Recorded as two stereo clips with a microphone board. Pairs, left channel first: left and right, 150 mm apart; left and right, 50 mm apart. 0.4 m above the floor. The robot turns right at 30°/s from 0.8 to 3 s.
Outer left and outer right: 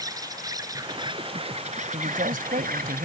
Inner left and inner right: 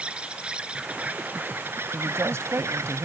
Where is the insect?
155° right; by 3.0 s 90° right.